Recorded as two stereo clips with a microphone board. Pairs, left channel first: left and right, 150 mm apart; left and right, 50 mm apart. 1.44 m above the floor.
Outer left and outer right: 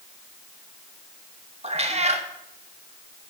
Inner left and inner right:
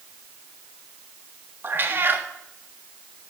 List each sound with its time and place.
1.6 s a cat meowing: 45° right (ahead or behind), 1.3 m